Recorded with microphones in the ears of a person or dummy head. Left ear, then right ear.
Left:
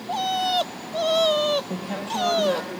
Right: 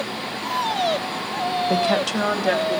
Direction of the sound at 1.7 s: 75° right (ahead or behind).